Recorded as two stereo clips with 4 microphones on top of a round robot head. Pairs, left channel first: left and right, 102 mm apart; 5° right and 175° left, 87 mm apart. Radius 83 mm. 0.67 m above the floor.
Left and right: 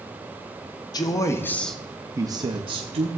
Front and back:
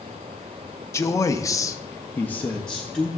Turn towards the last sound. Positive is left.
turn(degrees=-95)